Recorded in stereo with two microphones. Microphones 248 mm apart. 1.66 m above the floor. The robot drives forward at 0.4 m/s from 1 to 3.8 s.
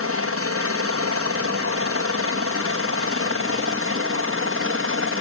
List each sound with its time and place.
0.0 s a helicopter: 65° right (ahead or behind); by 5.2 s 60° right (ahead or behind)